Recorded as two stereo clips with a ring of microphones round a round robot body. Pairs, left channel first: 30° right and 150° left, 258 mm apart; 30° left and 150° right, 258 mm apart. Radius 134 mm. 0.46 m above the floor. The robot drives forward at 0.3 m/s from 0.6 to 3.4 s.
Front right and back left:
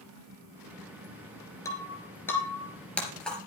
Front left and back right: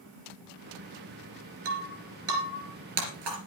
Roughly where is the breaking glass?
Right.